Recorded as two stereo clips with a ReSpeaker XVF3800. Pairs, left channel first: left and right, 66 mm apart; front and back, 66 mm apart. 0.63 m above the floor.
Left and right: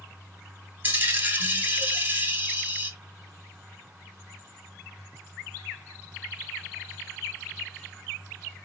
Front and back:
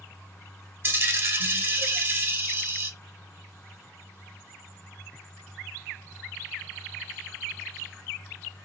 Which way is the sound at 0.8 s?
140° right.